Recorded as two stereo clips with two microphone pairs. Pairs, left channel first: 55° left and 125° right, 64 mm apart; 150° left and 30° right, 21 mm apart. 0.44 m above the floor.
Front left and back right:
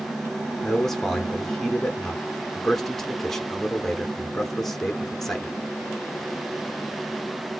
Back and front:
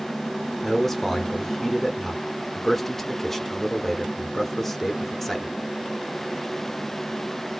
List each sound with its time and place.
0.6 s a man speaking: 130° left, 0.9 m